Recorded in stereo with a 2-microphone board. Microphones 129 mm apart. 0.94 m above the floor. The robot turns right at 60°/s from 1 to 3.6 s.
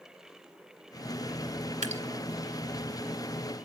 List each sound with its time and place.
1.8 s dripping: 70° right (ahead or behind), 2 m; by 2.0 s 60° right (ahead or behind), 2 m